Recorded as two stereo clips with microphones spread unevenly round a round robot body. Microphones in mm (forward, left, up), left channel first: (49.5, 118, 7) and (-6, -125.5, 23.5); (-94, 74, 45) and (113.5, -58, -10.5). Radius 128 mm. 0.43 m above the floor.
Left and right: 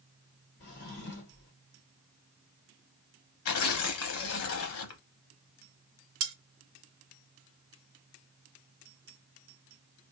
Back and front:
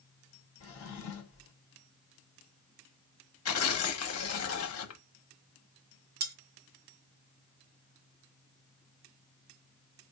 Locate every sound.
0.6 s a drawer: 120° left, 1.2 m
3.5 s tearing paper: 115° left, 0.7 m
6.2 s cutlery clinking: 75° right, 0.9 m